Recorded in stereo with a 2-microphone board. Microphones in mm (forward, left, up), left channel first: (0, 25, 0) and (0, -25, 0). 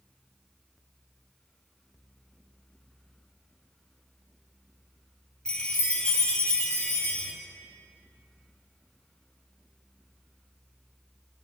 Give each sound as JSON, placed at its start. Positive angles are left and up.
{"t": 5.5, "sound": "a chime", "side_deg": 20, "distance_m": 3.5}